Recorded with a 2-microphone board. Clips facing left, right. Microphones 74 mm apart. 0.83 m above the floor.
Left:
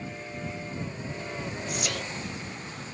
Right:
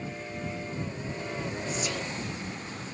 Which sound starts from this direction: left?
Whispering, at 1.7 s.